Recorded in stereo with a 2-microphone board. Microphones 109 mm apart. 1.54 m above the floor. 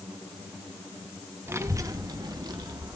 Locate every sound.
1.5 s a child speaking: 20° right (ahead or behind), 0.9 m; by 3.0 s 40° right (ahead or behind), 1.8 m